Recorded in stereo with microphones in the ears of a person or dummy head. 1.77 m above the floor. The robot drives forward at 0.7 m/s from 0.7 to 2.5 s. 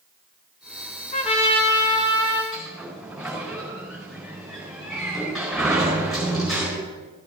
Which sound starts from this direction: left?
A trumpet, at 1.1 s.